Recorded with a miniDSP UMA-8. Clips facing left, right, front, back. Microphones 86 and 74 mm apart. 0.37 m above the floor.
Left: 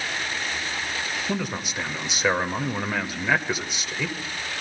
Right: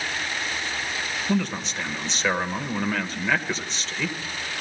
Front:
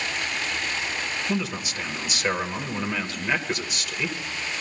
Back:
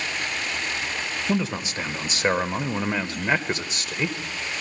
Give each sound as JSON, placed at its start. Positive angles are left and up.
{"t": 1.3, "sound": "a man speaking", "azimuth_deg": 160, "distance_m": 0.9}